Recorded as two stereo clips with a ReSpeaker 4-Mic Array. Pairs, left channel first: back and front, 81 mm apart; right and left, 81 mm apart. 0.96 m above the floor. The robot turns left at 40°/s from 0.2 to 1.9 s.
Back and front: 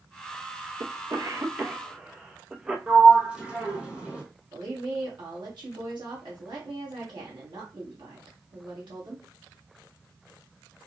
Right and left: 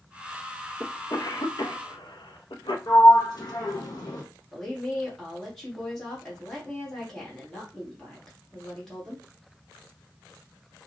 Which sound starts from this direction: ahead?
A woman speaking, at 4.5 s.